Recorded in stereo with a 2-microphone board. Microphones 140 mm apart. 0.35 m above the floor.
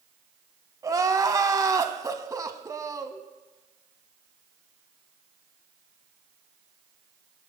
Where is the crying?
25° right (ahead or behind), 0.7 m.